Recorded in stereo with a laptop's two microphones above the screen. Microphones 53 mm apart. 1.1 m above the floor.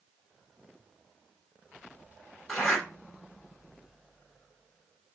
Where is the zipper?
10° left (ahead or behind), 3.5 m.